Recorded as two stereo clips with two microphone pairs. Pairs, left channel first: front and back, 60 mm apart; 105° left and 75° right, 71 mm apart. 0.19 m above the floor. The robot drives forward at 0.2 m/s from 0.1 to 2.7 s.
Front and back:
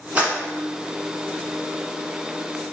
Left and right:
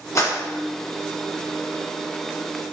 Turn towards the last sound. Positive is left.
turn(degrees=135)